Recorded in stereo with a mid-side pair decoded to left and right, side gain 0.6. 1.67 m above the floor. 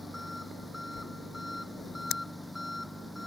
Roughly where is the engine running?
Ahead.